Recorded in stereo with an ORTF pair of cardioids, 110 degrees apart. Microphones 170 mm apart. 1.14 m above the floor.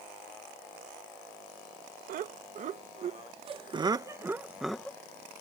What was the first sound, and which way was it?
Laughter, 55° right.